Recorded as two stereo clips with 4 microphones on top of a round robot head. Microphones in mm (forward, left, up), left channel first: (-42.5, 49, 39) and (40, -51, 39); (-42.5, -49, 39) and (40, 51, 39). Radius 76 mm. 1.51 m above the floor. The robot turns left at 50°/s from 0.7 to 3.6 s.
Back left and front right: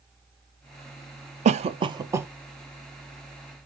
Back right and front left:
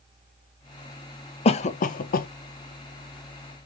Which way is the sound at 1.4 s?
85° right.